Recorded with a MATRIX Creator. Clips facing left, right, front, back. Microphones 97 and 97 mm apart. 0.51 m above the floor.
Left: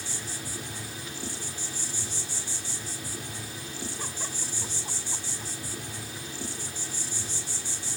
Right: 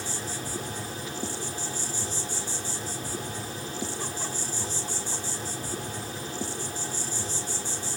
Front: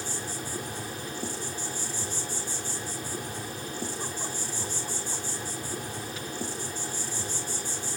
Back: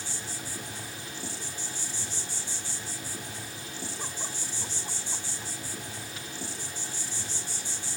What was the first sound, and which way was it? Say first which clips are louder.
An insect: right 5 dB, front 5 dB; 45° right.